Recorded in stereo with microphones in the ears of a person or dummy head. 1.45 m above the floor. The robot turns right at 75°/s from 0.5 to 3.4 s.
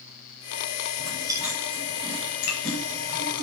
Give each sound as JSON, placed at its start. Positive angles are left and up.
{"t": 1.0, "sound": "chewing", "side_deg": -45, "distance_m": 7.0}